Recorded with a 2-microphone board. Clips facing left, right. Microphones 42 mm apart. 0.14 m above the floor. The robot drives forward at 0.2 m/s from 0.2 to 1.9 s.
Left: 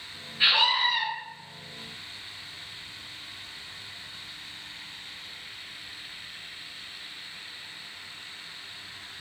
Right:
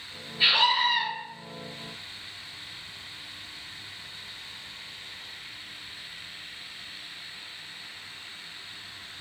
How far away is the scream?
About 1.6 m.